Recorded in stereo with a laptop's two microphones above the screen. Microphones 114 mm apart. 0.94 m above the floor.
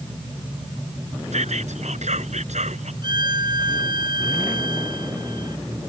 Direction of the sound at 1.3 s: 85° right.